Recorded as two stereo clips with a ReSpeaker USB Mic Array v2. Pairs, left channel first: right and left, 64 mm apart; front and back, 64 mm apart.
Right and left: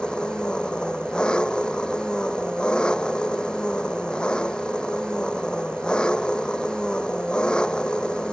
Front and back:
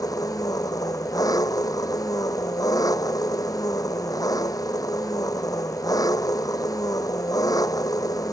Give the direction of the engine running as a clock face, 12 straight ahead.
12 o'clock.